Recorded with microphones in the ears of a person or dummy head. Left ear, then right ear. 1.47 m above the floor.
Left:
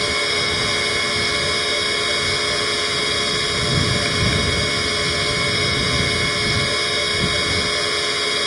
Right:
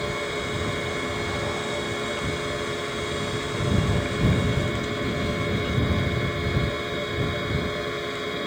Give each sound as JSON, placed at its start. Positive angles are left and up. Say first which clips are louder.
{"t": 0.0, "sound": "a machine running", "louder": "left 9 dB", "side_deg": 80}